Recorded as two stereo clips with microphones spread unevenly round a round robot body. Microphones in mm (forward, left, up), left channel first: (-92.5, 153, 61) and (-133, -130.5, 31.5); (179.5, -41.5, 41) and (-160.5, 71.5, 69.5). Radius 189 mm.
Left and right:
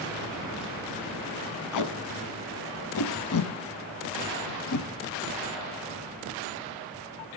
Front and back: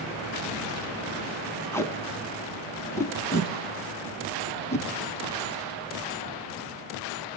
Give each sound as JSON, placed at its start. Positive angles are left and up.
{"t": 1.7, "sound": "tape being pulled", "azimuth_deg": 65, "distance_m": 0.7}